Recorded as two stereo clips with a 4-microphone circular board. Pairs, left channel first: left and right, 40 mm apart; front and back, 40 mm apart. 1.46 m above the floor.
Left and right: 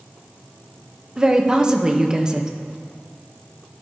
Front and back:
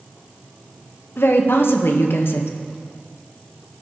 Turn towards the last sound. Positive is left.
turn(degrees=-15)